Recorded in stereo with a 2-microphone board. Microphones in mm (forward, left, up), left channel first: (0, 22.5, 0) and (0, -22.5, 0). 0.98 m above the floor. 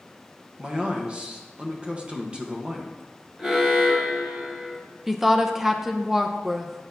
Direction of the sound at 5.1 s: 5° right (ahead or behind).